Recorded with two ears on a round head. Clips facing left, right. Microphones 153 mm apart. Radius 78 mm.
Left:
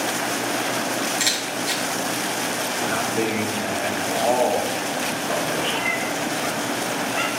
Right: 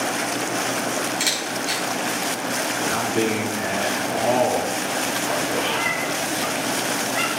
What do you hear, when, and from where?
1.2 s a camera shutter: 5° left (ahead or behind), 3.5 m
2.8 s a man speaking: 50° right (ahead or behind), 4.5 m
5.5 s a cat meowing: 10° right (ahead or behind), 4.5 m